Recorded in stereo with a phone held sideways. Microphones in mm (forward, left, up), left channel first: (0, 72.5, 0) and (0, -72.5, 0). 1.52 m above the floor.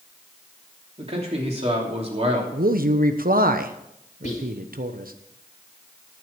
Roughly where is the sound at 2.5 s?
Right.